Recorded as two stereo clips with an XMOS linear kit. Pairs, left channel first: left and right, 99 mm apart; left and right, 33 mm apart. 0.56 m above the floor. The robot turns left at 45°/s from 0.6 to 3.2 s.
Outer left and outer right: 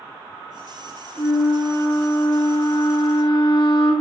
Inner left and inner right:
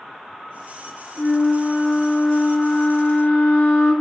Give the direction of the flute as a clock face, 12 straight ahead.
5 o'clock.